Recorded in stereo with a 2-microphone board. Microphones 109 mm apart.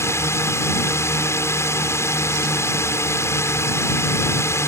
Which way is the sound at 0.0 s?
25° left (ahead or behind).